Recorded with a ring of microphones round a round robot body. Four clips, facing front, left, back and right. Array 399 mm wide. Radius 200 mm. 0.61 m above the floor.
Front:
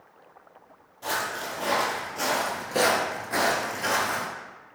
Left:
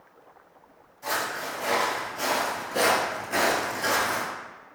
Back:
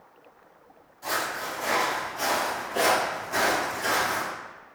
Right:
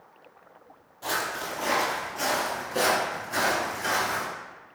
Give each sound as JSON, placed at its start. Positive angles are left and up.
{"t": 1.0, "sound": "footsteps", "azimuth_deg": -50, "distance_m": 1.4}